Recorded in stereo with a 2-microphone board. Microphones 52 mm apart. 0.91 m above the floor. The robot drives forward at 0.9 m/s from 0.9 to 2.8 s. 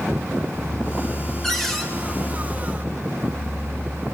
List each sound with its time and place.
1.4 s a cupboard door: 5° left (ahead or behind), 4.5 m